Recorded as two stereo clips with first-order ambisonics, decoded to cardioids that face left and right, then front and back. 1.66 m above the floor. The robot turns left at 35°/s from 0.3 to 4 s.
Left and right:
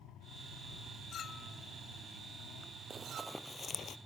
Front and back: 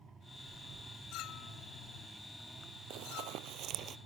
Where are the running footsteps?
155° right; by 4.0 s 130° left.